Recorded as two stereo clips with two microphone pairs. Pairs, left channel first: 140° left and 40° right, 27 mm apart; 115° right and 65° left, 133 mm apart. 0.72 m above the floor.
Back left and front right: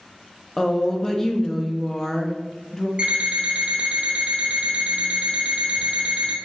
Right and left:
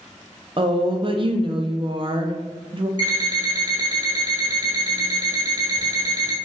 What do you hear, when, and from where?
0.6 s a woman speaking: 70° left, 0.6 m
3.0 s an alarm clock: 10° left, 1.4 m